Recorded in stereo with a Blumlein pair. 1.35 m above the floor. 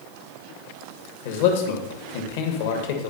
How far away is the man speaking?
About 1.3 m.